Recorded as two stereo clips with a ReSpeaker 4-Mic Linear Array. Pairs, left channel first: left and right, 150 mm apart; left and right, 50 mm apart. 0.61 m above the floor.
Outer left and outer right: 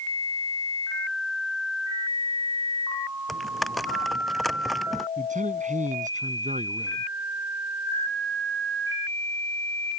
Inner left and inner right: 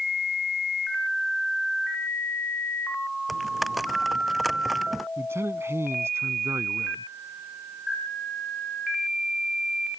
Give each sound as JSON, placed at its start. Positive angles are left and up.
{"t": 3.3, "sound": "typing on a keyboard", "side_deg": 0}
{"t": 5.2, "sound": "a man speaking", "side_deg": -65}